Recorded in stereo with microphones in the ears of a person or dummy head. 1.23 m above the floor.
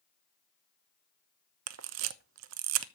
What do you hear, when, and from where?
1.7 s a camera shutter: 70° right (ahead or behind), 0.8 m